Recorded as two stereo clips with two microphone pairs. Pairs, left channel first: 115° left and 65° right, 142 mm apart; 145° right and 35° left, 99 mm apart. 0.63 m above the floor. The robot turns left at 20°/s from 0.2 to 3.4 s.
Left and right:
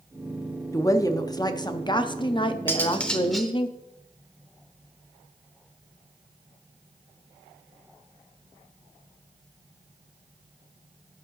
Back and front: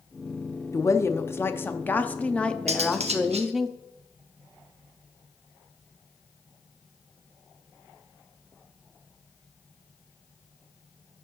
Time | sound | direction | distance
0.7 | a woman speaking | 170° left | 0.6 m
2.7 | cutlery clinking | 40° left | 0.9 m